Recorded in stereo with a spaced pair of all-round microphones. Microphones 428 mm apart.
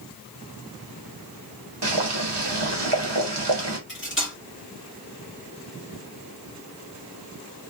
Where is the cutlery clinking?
25° left (ahead or behind), 1.9 m.